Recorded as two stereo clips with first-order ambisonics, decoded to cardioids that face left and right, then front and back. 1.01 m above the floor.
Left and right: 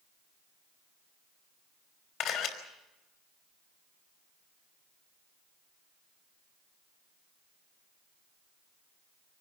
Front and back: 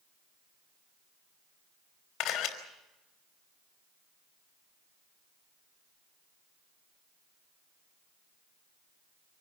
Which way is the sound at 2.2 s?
50° left.